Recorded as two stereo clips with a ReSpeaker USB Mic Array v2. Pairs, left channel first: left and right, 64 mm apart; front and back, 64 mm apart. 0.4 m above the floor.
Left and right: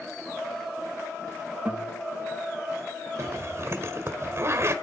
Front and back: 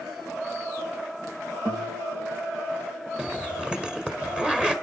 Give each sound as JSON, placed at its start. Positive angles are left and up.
{"t": 1.6, "sound": "a guitar", "azimuth_deg": -165, "distance_m": 7.5}
{"t": 3.2, "sound": "a zipper", "azimuth_deg": -110, "distance_m": 1.8}